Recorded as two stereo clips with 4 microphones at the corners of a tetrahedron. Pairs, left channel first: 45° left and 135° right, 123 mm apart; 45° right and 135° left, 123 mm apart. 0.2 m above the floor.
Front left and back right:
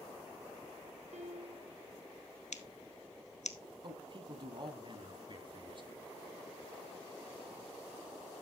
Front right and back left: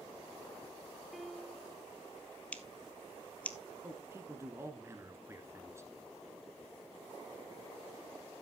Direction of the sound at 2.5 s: 35° left.